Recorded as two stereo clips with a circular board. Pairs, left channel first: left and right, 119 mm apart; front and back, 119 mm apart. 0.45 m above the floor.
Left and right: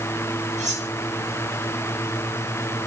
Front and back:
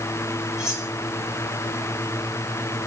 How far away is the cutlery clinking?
About 8 m.